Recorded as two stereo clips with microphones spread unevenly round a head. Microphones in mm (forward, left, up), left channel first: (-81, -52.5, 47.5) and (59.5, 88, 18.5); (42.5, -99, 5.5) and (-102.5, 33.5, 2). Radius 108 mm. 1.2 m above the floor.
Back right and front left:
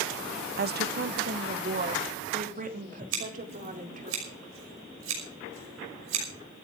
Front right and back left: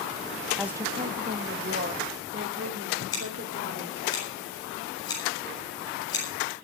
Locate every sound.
0.6 s a woman speaking: 50° left, 0.7 m; by 4.1 s 95° left, 4.5 m
3.1 s scissors: 30° left, 6 m